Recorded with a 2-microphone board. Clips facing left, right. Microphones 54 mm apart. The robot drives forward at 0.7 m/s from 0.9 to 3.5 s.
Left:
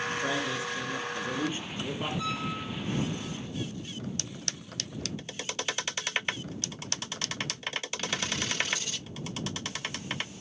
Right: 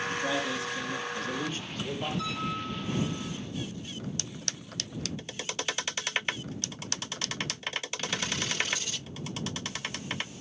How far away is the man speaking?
About 3 m.